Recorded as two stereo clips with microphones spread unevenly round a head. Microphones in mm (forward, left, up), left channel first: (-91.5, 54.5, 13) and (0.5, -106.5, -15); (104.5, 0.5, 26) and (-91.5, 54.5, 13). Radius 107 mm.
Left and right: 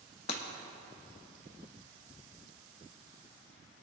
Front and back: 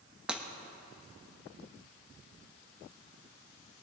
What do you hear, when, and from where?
0.3 s breaking glass: 75° left, 1.0 m